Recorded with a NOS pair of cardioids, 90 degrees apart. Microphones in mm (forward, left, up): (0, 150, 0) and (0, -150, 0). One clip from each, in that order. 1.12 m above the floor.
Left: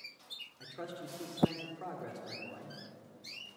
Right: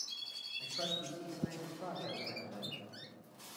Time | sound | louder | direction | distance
0.6 | a man speaking | right 9 dB | 35° left | 3 m